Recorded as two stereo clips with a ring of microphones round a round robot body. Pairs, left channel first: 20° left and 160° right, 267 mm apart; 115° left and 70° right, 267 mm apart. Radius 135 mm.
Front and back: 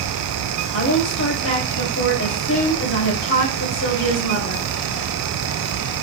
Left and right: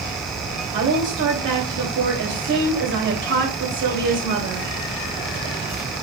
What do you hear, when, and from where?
0.7 s a woman speaking: 20° right, 3 m